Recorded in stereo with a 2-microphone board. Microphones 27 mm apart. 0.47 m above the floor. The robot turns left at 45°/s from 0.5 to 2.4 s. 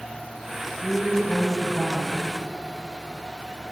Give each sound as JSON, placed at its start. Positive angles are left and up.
{"t": 0.8, "sound": "a woman speaking", "azimuth_deg": 55, "distance_m": 3.0}